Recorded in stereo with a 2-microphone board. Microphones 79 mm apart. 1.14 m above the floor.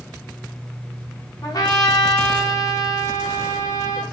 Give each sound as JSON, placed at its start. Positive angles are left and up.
{"t": 1.4, "sound": "a trumpet", "side_deg": 50, "distance_m": 0.8}